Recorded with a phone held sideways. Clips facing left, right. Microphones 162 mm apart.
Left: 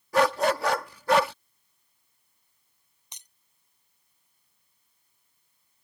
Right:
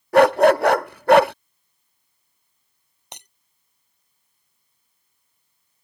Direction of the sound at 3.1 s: 65° right (ahead or behind).